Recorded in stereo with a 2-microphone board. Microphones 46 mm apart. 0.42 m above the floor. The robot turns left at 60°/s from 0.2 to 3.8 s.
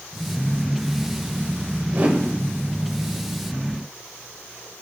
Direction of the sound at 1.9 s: 35° right (ahead or behind).